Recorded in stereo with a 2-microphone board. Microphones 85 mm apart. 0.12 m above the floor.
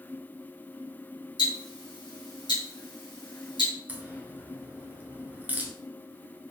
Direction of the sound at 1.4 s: 65° left (ahead or behind).